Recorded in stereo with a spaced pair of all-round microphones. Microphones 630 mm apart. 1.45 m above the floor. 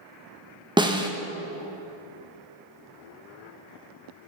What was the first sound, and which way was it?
A snare drum, 10° right (ahead or behind).